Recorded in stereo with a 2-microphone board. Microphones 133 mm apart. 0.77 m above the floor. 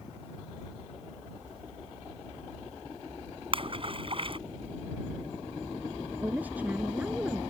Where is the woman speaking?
10° right (ahead or behind).